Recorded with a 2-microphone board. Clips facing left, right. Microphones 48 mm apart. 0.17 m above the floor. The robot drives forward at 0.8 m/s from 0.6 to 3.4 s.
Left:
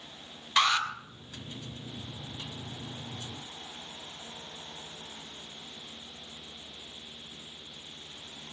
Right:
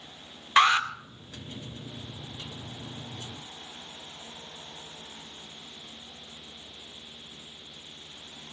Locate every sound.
0.6 s an alarm: 30° right (ahead or behind), 1.7 m; by 0.9 s 25° right (ahead or behind), 1.9 m